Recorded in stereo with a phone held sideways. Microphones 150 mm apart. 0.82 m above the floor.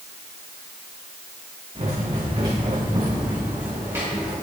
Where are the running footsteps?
45° right (ahead or behind), 3.5 m; by 4.3 s 15° right (ahead or behind), 4.5 m.